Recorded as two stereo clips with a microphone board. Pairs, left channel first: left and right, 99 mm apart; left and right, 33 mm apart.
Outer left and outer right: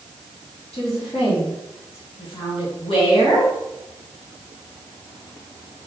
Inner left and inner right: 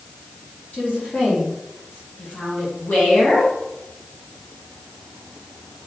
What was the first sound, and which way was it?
A woman speaking, 75° left (ahead or behind).